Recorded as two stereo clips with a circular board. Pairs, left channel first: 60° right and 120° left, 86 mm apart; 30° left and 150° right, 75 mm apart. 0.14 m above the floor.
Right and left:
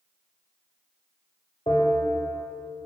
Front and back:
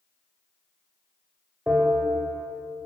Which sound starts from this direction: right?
A bell, at 1.7 s.